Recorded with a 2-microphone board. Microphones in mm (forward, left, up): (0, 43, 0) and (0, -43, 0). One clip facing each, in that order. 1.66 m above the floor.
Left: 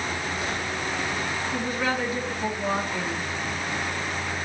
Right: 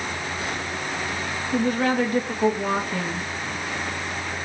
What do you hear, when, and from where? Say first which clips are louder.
1.5 s a woman speaking: right 8 dB; 55° right (ahead or behind), 2.0 m